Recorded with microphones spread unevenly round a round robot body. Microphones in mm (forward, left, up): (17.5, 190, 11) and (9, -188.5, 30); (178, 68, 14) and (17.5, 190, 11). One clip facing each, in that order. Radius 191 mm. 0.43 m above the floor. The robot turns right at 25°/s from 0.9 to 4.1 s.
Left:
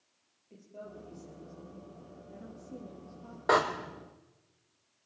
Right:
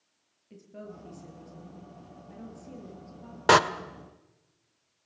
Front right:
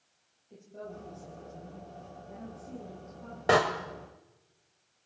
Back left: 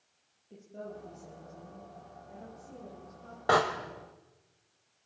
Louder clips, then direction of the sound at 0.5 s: Right 3 dB, even; 140° right.